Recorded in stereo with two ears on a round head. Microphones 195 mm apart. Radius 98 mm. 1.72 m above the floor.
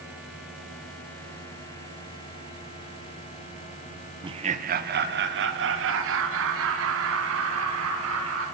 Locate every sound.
4.2 s laughter: 20° right (ahead or behind), 1.2 m; by 8.4 s 75° right (ahead or behind), 6 m